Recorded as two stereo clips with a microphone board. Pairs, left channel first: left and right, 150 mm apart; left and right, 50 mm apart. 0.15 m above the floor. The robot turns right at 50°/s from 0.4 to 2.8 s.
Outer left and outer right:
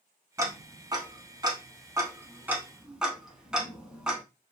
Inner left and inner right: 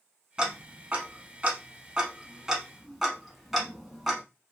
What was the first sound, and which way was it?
Ticking, 20° right (ahead or behind).